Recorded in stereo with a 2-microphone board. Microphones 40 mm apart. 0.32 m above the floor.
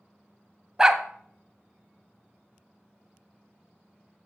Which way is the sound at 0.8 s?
15° right (ahead or behind).